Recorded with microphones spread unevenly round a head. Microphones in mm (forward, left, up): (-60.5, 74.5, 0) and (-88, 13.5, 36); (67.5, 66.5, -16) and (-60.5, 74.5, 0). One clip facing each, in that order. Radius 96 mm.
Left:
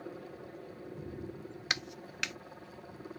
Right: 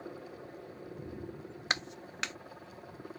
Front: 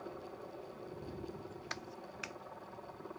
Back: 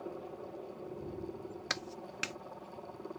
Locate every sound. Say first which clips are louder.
0.0 s a helicopter: even, back 4 dB; 155° left
1.7 s a clap: right 3 dB, back 4 dB; 175° right